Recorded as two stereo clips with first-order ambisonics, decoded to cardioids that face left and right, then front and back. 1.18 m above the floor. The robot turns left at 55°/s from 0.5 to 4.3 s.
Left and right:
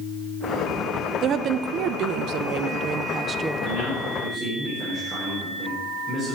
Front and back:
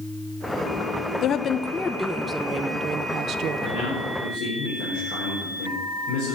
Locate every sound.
1.2 s a woman speaking: 35° right, 0.6 m; by 3.7 s 175° right, 0.6 m
3.6 s a man speaking: 35° left, 4.5 m; by 6.4 s 5° right, 4.5 m